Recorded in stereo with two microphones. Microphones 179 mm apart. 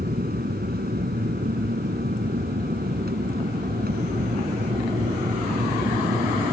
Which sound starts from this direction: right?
An aircraft, at 0.0 s.